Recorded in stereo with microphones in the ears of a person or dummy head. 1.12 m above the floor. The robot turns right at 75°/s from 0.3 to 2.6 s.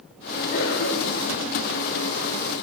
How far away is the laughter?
No laughter in this recording.